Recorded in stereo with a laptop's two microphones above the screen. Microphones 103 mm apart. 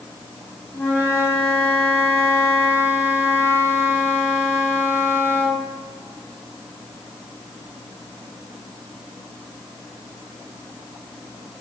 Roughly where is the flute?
Left.